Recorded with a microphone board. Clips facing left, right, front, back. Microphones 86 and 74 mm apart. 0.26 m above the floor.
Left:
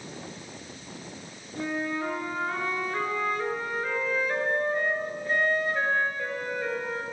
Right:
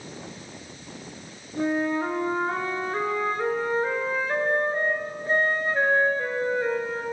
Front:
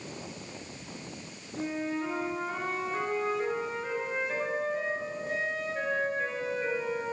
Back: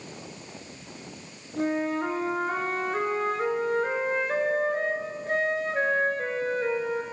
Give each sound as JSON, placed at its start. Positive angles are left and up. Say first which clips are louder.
{"t": 1.6, "sound": "a flute", "louder": "right 6 dB, back 6 dB", "azimuth_deg": -145, "distance_m": 3.0}